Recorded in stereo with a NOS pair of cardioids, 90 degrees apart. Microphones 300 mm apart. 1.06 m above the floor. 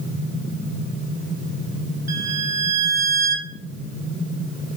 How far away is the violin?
About 1.8 m.